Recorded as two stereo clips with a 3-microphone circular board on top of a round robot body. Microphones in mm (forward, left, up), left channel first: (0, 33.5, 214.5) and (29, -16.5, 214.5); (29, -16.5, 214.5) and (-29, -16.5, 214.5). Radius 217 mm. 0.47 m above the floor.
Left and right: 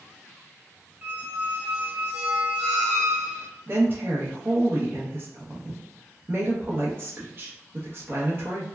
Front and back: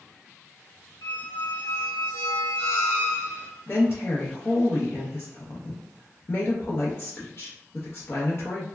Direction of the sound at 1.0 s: 5° left.